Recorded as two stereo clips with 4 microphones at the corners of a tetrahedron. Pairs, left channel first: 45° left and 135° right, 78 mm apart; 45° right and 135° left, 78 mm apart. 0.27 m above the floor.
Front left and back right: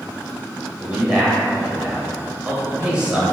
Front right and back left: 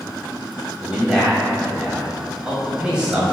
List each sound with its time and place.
0.8 s a man speaking: straight behind, 0.9 m